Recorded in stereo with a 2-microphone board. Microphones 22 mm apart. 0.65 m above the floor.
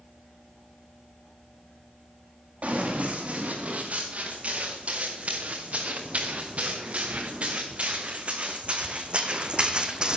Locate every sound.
2.6 s running footsteps: 80° right, 5 m; by 10.2 s 40° right (ahead or behind), 1.4 m